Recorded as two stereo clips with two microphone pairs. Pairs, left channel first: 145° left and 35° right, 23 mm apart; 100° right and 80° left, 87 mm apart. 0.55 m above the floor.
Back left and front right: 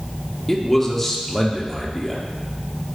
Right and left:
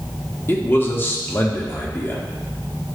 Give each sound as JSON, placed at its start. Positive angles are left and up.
{"t": 0.5, "sound": "a man speaking", "azimuth_deg": -135, "distance_m": 1.1}